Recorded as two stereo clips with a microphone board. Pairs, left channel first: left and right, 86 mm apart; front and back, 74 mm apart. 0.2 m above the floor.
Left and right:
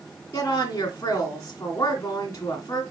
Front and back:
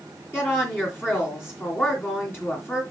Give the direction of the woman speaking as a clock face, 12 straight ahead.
10 o'clock.